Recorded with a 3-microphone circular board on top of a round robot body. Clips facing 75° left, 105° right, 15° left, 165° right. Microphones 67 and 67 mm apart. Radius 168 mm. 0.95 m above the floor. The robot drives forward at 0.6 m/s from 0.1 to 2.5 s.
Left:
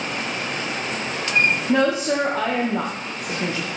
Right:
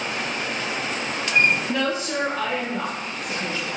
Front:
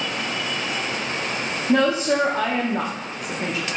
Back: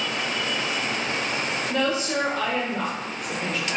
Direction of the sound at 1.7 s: 45° left.